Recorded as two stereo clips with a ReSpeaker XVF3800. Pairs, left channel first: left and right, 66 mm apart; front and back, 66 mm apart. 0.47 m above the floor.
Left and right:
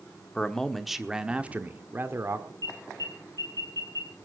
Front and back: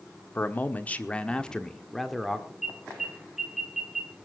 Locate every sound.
0.3 s a man speaking: 25° left, 1.1 m; by 2.5 s 95° right, 1.3 m
2.6 s an alarm: 95° right, 5.5 m